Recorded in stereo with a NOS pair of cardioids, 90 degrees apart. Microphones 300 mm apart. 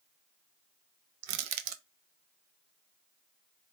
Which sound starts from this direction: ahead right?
Crushing, at 1.2 s.